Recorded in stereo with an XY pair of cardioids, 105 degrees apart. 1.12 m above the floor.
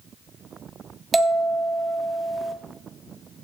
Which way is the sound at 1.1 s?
25° right.